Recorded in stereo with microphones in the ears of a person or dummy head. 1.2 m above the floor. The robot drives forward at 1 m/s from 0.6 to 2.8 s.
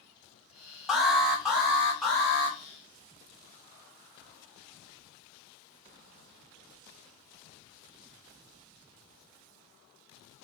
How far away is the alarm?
About 1.0 m.